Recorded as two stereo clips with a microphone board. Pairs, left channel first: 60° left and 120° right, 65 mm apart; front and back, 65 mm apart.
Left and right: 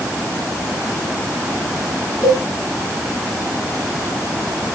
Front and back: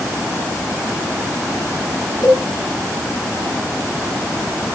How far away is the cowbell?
About 3 m.